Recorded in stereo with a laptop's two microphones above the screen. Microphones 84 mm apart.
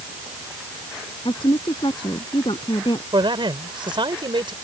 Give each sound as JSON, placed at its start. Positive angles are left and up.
{"t": 1.2, "sound": "a woman speaking", "side_deg": 85}
{"t": 3.1, "sound": "a man speaking", "side_deg": -70}